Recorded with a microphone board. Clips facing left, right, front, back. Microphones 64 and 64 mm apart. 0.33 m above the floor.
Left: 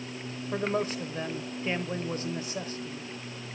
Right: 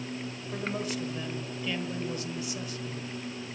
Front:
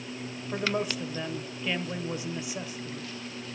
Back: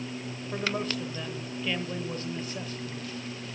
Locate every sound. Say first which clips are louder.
0.5 s a man speaking: left 5 dB, front 1 dB; 70° left, 1.0 m